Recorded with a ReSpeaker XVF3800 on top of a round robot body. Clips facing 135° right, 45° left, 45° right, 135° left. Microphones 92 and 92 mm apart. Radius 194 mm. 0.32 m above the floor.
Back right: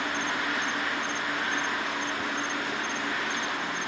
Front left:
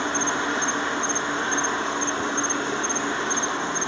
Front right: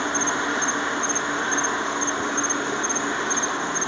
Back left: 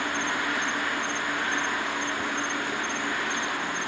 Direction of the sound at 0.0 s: 5° left.